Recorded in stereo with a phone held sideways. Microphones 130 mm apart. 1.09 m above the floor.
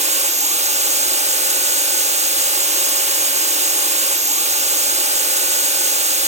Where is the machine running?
55° right (ahead or behind), 1.0 m.